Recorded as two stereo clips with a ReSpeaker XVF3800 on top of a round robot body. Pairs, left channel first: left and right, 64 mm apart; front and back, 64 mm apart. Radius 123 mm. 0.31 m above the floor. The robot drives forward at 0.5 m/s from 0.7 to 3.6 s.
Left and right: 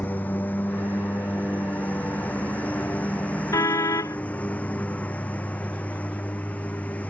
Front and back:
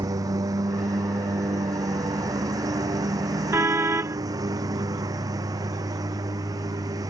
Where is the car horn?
125° left; by 4.2 s 130° left.